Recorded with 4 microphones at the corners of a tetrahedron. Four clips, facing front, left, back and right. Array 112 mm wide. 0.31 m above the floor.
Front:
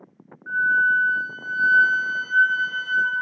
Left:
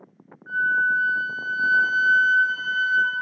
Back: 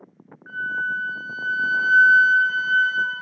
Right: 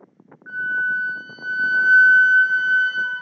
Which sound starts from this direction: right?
A flute, at 0.5 s.